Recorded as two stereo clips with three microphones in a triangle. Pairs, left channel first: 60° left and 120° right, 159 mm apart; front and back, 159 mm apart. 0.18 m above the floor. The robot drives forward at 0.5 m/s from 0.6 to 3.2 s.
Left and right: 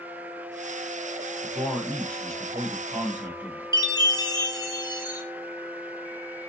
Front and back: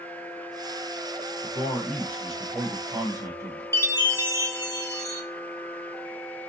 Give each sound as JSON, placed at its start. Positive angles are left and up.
{"t": 1.4, "sound": "a man speaking", "azimuth_deg": 10, "distance_m": 1.1}
{"t": 3.7, "sound": "a chime", "azimuth_deg": 115, "distance_m": 0.6}